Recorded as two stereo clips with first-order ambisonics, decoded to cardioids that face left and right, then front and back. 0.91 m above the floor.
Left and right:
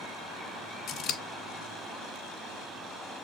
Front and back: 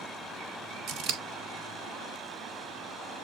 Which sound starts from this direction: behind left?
Scissors, at 0.9 s.